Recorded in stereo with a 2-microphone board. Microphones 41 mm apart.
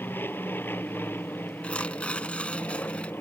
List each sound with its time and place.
0.0 s an aircraft: 60° left (ahead or behind)
1.6 s tearing paper: 30° left (ahead or behind)